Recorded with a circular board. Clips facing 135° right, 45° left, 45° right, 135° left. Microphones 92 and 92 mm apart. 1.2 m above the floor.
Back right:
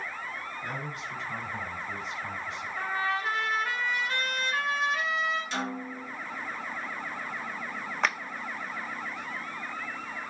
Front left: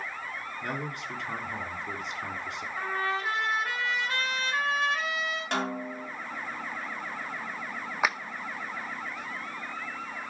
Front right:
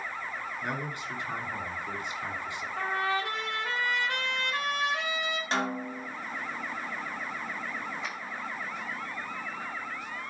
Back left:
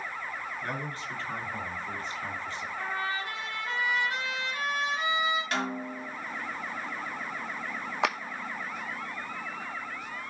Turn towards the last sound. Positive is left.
turn(degrees=125)